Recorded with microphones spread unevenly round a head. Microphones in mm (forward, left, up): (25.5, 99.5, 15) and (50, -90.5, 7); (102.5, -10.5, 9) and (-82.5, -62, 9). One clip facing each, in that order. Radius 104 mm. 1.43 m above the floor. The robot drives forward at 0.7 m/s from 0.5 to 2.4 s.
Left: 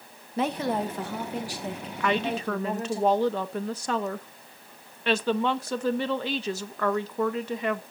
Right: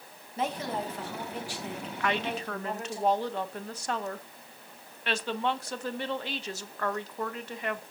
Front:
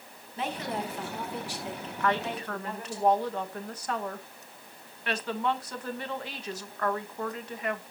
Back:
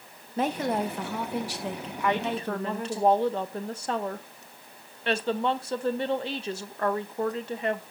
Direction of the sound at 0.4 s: 140° left.